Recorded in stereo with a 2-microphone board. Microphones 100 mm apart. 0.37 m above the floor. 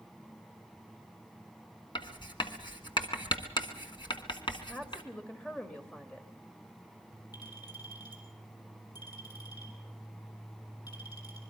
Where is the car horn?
I don't hear a car horn.